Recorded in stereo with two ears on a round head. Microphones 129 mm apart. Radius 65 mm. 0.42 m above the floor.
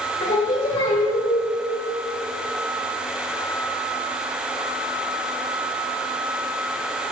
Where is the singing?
30° left (ahead or behind), 1.2 m.